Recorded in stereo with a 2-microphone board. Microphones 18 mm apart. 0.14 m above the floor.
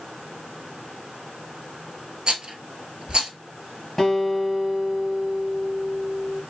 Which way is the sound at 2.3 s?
55° right (ahead or behind).